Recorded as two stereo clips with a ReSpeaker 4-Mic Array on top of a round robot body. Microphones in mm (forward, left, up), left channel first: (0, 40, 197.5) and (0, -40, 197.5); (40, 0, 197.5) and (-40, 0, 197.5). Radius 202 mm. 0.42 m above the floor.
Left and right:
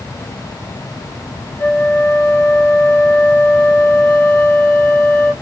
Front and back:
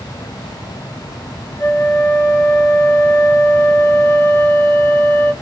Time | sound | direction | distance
1.6 | a flute | 40° left | 1.8 m